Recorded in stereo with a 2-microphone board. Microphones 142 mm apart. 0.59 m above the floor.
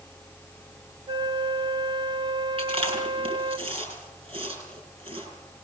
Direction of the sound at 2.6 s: 40° right (ahead or behind).